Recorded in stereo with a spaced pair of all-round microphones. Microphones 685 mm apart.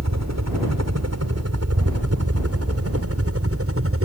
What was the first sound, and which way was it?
A helicopter, 20° right (ahead or behind).